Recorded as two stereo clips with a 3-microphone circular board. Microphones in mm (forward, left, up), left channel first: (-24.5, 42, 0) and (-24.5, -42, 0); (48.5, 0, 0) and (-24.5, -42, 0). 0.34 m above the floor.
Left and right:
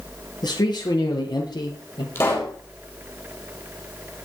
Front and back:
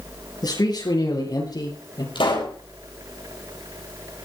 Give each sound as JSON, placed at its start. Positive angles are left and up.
{"t": 0.4, "sound": "a man speaking", "azimuth_deg": 65, "distance_m": 6.5}
{"t": 2.1, "sound": "a pop", "azimuth_deg": 30, "distance_m": 6.0}